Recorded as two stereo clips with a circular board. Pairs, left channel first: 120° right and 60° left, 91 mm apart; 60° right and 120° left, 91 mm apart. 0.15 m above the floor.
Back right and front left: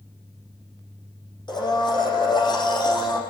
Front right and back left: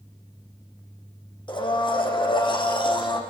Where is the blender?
90° right, 7 m.